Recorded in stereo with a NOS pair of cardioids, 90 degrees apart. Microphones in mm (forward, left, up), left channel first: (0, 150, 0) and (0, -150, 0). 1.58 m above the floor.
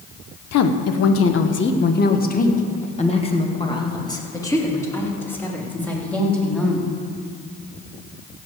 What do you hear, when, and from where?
0.5 s a woman speaking: 60° left, 1.2 m; by 6.9 s straight ahead, 4 m